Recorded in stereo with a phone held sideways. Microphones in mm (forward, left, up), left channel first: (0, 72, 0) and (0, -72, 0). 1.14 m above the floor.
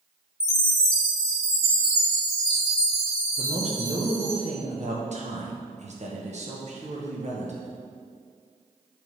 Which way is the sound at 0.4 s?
25° right (ahead or behind).